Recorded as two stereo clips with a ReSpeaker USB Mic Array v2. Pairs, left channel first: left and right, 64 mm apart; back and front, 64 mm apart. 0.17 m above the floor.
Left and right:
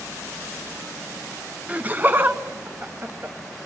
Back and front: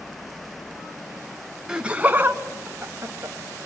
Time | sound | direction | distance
1.7 | laughter | 65° right | 1.1 m